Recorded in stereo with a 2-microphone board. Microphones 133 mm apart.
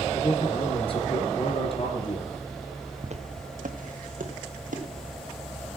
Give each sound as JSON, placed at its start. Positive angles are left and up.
{"t": 0.1, "sound": "a man speaking", "side_deg": 45, "distance_m": 3.0}
{"t": 3.0, "sound": "footsteps", "side_deg": -55, "distance_m": 1.4}